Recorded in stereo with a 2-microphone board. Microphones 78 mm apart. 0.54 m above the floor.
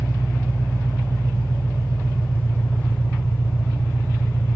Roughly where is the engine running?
Left.